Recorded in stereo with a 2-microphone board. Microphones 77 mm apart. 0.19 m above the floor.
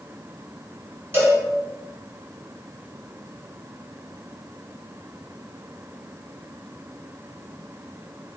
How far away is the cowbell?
About 1.3 m.